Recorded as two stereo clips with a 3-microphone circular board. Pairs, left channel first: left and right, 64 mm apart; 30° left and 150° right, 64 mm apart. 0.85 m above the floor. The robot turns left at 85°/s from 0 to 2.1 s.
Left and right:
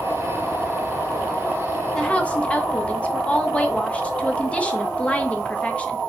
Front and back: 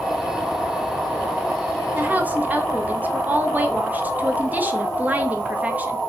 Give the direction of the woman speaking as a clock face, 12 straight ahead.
6 o'clock.